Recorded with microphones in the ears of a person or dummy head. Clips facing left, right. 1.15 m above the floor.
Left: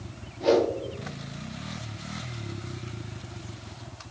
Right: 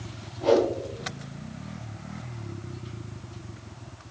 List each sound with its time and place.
0.4 s a whoosh: 25° left (ahead or behind), 0.7 m